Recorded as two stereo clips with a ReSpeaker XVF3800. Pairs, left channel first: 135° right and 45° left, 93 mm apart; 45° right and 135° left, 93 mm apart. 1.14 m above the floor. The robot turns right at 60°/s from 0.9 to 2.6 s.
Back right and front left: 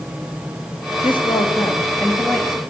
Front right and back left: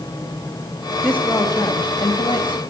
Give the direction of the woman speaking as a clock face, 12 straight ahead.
4 o'clock.